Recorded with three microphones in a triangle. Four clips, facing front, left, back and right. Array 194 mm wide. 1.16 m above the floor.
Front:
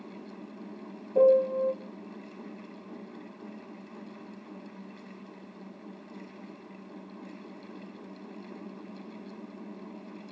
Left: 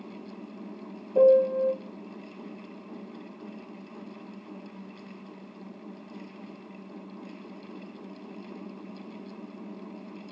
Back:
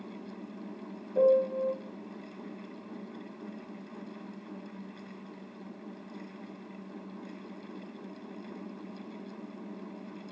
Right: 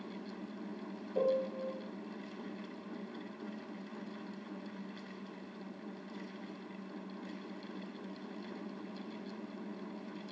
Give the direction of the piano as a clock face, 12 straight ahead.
10 o'clock.